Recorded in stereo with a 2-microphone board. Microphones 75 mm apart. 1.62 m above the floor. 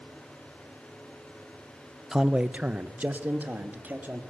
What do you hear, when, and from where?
2.1 s a man speaking: 5° right (ahead or behind), 0.6 m; by 4.2 s 25° right (ahead or behind), 3 m